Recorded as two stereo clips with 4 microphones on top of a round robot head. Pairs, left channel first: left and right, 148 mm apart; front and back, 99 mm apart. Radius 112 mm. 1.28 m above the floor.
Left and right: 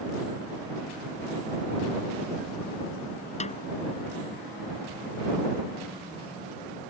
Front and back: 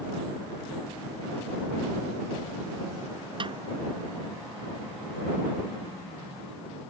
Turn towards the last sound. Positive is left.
turn(degrees=135)